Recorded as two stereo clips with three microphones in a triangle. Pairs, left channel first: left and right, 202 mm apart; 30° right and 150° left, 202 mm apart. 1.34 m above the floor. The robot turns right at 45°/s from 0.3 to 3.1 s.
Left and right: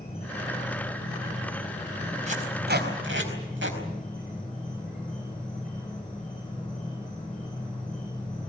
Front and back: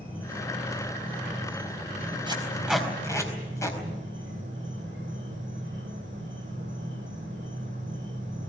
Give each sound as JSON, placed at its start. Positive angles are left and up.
{"t": 0.0, "sound": "an insect", "azimuth_deg": 50, "distance_m": 9.0}
{"t": 2.3, "sound": "tape being pulled", "azimuth_deg": -145, "distance_m": 4.5}